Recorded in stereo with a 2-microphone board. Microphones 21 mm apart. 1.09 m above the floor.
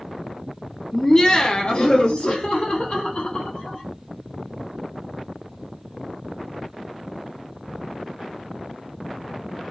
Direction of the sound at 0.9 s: 5° left (ahead or behind).